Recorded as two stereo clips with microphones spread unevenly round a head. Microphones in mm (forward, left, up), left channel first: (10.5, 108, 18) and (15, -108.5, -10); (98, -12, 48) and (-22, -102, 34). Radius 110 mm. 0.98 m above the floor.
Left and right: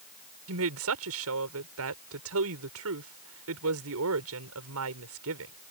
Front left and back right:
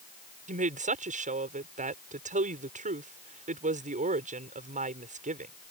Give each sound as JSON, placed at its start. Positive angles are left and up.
{"t": 0.5, "sound": "a woman speaking", "azimuth_deg": -110}